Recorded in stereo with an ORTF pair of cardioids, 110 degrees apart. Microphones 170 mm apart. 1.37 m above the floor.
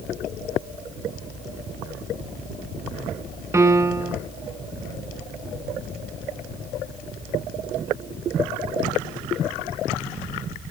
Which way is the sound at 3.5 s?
15° right.